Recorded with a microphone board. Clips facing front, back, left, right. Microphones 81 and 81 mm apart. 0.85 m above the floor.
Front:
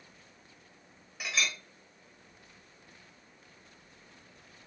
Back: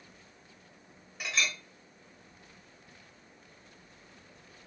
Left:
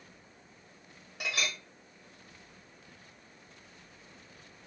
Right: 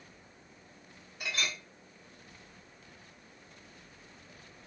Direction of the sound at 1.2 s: 90° left.